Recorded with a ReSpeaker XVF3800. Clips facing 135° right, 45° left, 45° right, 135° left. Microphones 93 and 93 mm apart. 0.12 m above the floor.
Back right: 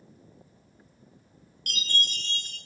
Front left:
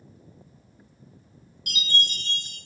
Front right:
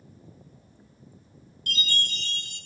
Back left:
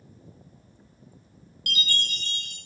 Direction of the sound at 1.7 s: 130° left.